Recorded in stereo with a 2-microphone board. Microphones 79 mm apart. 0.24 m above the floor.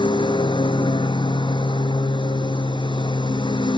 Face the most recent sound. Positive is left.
turn(degrees=85)